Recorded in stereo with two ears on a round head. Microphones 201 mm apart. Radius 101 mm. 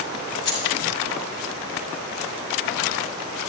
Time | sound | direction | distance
0.5 | keys jangling | 50° left (ahead or behind) | 5.5 m